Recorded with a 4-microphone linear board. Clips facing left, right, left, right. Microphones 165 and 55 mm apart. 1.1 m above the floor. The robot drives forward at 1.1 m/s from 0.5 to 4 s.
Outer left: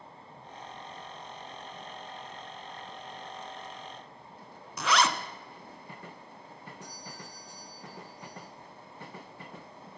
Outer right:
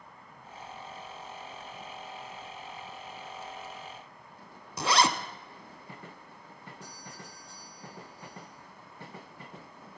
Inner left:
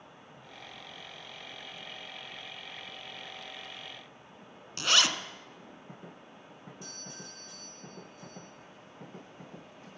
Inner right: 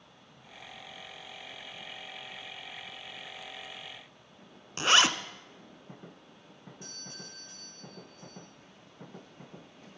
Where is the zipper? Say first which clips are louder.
Outer right 1 dB, inner right 3 dB; 35° right (ahead or behind), 0.8 m.